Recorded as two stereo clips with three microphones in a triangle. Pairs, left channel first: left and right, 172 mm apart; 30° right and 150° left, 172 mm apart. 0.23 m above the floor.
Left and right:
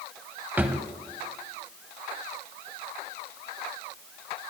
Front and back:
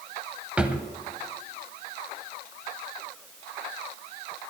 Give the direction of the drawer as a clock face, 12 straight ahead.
5 o'clock.